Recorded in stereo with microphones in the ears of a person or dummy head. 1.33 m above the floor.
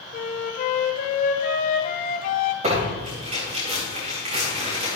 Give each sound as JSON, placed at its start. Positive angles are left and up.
{"t": 0.1, "sound": "a flute", "side_deg": 50, "distance_m": 1.1}
{"t": 2.6, "sound": "tearing paper", "side_deg": -40, "distance_m": 4.5}